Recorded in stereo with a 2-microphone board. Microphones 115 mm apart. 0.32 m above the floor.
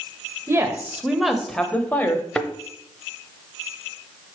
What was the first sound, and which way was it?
A woman speaking, 25° right (ahead or behind).